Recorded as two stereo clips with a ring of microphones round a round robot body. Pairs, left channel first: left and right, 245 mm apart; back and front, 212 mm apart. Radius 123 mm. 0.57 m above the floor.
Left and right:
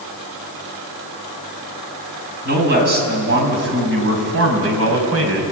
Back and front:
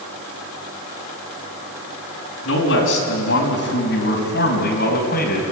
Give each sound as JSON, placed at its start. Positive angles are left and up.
{"t": 2.5, "sound": "a man speaking", "azimuth_deg": -140, "distance_m": 5.0}